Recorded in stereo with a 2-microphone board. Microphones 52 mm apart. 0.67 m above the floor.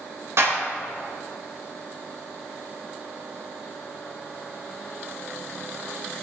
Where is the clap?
65° right (ahead or behind), 3 m.